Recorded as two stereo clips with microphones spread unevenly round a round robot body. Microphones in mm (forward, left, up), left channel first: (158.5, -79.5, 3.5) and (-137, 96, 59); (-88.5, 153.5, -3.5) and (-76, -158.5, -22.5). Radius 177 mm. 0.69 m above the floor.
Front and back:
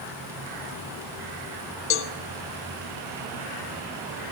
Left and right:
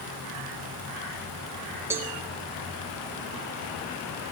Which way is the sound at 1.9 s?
10° right.